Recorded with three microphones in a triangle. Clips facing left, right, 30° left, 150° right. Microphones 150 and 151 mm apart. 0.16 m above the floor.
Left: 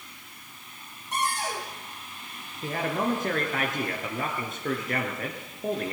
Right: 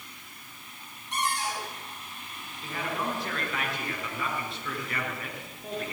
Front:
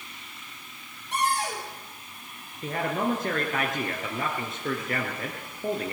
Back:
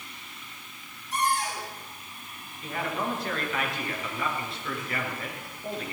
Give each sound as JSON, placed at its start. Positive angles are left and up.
{"t": 1.1, "sound": "a cupboard door", "azimuth_deg": 50, "distance_m": 5.5}
{"t": 2.6, "sound": "a man speaking", "azimuth_deg": 60, "distance_m": 2.5}